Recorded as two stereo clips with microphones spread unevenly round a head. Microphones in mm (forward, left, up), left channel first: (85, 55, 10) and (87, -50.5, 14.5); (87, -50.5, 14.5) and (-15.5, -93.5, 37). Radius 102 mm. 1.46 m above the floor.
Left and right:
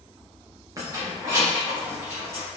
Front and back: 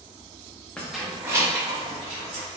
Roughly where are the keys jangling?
Right.